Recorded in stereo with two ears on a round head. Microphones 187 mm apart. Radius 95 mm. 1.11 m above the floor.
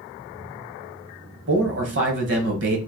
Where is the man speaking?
60° right (ahead or behind), 1.2 m.